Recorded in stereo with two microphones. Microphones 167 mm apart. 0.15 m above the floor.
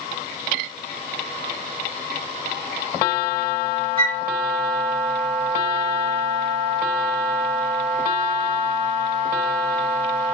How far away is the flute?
About 1.8 m.